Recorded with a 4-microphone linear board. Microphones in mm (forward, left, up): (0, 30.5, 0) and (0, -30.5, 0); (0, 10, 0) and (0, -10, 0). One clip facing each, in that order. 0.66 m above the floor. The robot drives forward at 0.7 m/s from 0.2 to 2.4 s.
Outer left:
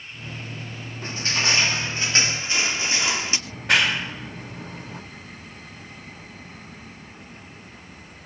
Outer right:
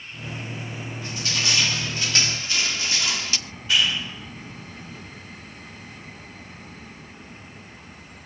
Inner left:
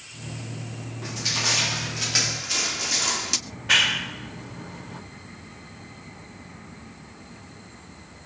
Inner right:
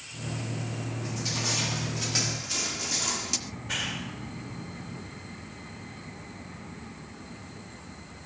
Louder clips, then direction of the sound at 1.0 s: Outer left 4 dB, inner left 7 dB; 35° left (ahead or behind).